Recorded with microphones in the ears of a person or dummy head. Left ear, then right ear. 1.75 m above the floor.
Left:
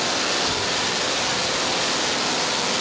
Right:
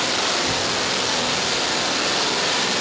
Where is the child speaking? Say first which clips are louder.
Right 1 dB; 70° right (ahead or behind), 1.5 m; by 2.8 s 45° left (ahead or behind), 2.5 m.